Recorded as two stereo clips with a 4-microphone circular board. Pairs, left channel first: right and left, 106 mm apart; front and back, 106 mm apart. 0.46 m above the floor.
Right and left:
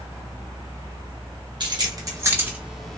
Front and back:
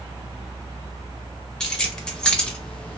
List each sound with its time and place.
1.6 s keys jangling: 80° left, 0.9 m; by 3.0 s 25° right, 0.6 m